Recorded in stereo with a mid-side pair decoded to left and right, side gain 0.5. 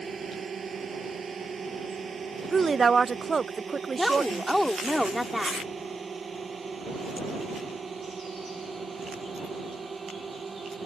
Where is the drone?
40° right; by 10.9 s 30° right.